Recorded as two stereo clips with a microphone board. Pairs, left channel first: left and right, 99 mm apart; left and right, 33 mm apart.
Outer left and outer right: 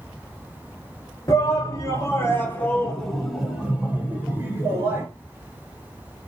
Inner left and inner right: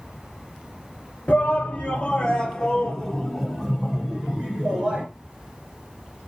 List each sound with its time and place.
1.3 s a shout: 35° left (ahead or behind), 1.4 m; by 5.0 s 25° right (ahead or behind), 1.9 m